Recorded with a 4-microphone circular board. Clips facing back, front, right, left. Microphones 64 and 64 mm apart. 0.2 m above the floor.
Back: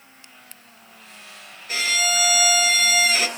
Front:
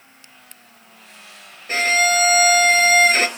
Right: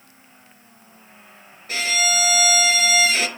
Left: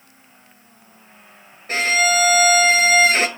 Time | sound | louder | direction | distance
1.7 | a violin | front 6 dB, left 5 dB | 45° left | 0.7 m